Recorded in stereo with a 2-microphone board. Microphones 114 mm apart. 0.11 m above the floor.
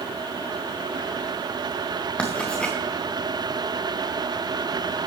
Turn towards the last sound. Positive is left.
turn(degrees=10)  # may be behind; listen again after turning